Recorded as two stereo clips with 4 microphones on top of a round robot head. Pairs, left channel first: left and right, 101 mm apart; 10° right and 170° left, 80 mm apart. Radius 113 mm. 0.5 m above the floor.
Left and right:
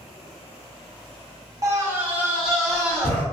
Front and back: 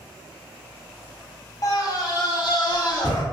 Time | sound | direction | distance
1.6 | a scream | 40° right | 0.9 m